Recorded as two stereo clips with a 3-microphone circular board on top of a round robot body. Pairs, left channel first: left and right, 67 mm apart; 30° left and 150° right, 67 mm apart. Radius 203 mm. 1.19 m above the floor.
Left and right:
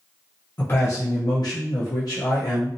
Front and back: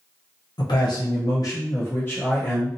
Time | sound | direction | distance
0.6 | a man speaking | 30° left | 0.7 m